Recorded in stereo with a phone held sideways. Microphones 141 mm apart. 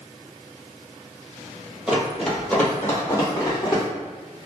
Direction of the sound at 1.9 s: 5° right (ahead or behind).